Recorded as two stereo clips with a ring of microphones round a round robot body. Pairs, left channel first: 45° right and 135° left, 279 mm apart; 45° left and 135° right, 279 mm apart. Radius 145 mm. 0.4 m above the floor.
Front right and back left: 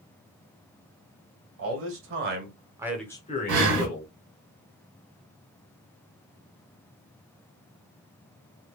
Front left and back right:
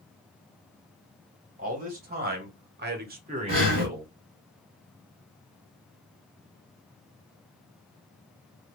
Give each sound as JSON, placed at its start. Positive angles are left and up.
{"t": 1.6, "sound": "a man speaking", "azimuth_deg": 165, "distance_m": 2.0}
{"t": 3.5, "sound": "breathing", "azimuth_deg": 155, "distance_m": 3.0}